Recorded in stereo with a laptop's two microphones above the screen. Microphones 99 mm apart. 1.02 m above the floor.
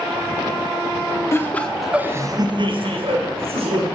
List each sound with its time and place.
1.3 s laughter: 25° left (ahead or behind), 0.8 m; by 3.9 s 85° right, 1.7 m